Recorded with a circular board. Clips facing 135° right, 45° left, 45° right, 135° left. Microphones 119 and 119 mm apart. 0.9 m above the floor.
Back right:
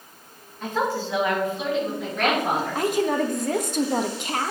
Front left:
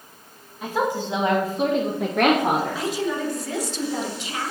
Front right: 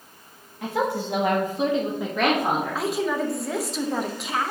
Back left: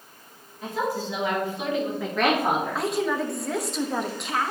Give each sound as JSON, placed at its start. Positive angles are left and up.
{"t": 0.6, "sound": "a woman speaking", "azimuth_deg": -35, "distance_m": 1.6}
{"t": 2.8, "sound": "a woman speaking", "azimuth_deg": -135, "distance_m": 0.9}